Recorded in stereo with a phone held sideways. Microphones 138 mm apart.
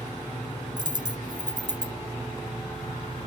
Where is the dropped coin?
35° right (ahead or behind).